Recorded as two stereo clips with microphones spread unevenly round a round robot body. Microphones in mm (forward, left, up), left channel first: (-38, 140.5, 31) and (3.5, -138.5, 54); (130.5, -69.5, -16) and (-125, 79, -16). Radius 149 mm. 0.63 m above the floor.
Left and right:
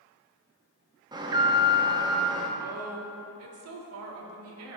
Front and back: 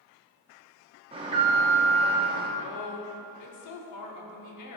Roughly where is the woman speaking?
Ahead right.